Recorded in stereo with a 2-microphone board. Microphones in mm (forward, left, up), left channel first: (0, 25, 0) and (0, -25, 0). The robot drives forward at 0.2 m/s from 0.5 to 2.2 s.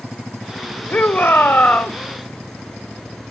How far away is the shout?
About 1.8 m.